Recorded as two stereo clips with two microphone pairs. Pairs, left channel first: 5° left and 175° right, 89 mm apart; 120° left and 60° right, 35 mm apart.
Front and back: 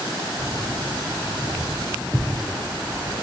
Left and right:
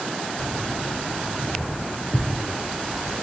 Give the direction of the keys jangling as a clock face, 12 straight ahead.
9 o'clock.